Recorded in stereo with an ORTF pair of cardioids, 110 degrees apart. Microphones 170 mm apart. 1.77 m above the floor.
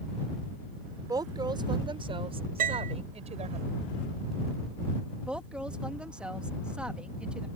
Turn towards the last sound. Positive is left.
turn(degrees=-5)